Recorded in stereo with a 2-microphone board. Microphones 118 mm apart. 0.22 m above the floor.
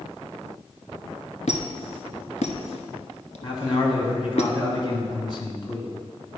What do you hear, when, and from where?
1.5 s a squeak: 75° left (ahead or behind), 1.1 m
3.4 s a man speaking: 45° left (ahead or behind), 1.8 m